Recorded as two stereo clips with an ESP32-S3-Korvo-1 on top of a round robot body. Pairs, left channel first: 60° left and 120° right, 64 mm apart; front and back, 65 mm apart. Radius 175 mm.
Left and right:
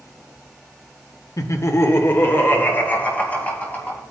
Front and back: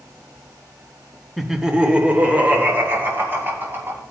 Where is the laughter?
90° left, 1.5 m; by 4.0 s 130° left, 4.5 m.